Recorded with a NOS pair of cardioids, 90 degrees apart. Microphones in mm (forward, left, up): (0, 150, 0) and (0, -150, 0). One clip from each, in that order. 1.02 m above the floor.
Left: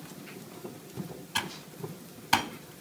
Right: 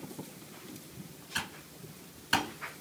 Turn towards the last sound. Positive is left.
turn(degrees=25)